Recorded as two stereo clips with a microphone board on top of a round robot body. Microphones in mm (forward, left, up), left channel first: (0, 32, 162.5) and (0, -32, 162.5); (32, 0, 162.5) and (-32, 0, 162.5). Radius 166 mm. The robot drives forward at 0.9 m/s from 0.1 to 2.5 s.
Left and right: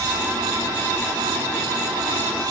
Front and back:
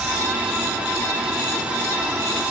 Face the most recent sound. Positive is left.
No sound to turn to.